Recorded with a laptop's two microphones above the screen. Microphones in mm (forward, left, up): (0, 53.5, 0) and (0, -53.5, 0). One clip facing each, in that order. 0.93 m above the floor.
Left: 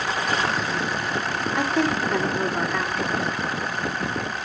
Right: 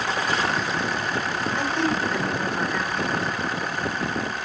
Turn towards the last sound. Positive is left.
turn(degrees=75)  # may be behind; listen again after turning